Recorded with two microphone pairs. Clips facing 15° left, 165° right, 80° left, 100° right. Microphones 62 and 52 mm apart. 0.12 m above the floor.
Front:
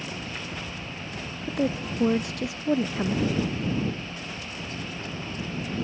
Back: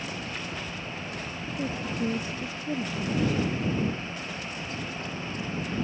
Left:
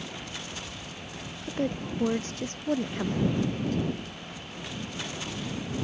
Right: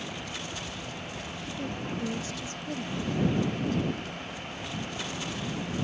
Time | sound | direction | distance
1.5 | a woman speaking | 35° left | ?